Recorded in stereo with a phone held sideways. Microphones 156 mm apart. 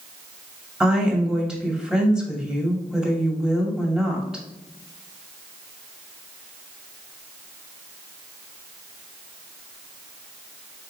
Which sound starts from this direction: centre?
A woman speaking, at 0.8 s.